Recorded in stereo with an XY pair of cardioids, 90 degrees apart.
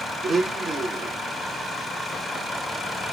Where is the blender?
65° right, 1.0 m.